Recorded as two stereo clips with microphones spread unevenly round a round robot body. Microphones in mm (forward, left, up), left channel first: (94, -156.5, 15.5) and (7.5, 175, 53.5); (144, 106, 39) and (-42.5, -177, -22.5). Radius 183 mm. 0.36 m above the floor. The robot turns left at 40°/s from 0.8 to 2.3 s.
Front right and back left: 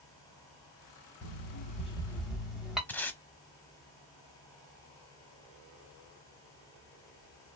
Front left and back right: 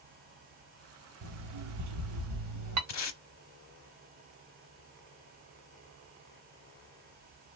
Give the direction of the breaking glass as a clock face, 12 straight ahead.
I don't hear breaking glass.